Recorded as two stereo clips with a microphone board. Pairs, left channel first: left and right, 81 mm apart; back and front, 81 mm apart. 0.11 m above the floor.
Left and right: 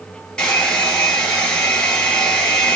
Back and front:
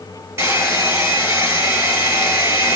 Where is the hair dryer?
20° left, 1.6 m.